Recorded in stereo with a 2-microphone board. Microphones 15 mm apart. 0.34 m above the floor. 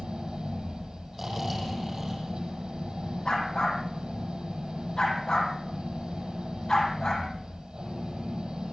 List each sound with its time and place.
0.0 s an engine running: 85° right, 9 m
1.1 s snoring: 20° right (ahead or behind), 6.5 m
3.2 s a dog barking: 60° left (ahead or behind), 5.5 m